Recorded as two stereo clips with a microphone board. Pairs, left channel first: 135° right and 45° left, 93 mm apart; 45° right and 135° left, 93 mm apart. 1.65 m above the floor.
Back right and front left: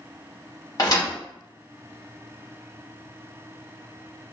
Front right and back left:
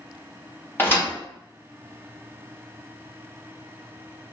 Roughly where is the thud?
Right.